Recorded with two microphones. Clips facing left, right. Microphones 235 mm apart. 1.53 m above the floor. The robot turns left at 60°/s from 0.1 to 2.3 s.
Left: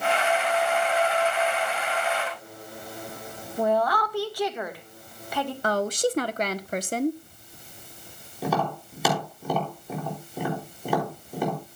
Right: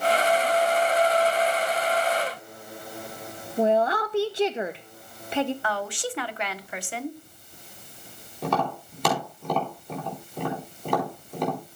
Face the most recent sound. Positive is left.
turn(degrees=5)  # may be behind; listen again after turning